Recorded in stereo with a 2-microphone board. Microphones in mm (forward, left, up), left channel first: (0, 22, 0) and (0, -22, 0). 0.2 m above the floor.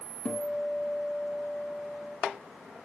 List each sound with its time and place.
0.2 s a guitar: 20° left (ahead or behind), 1.2 m